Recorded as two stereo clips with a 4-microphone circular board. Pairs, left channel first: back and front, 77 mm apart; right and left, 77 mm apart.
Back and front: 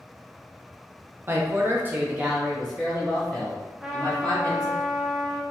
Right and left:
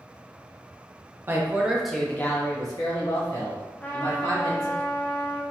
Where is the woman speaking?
45° left, 0.7 m; by 4.8 s 100° right, 1.7 m.